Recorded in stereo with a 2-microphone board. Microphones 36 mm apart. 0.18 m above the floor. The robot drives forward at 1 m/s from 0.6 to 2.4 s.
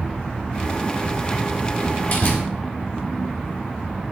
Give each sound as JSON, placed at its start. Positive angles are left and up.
{"t": 1.8, "sound": "a door slam", "side_deg": 70, "distance_m": 3.5}